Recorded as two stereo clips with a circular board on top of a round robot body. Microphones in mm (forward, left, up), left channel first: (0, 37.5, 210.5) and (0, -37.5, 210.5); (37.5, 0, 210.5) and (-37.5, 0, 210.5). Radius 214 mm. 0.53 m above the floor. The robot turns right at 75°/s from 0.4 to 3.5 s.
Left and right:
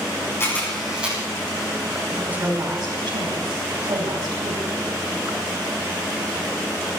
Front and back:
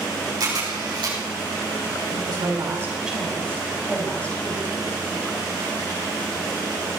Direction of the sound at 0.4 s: 145° left.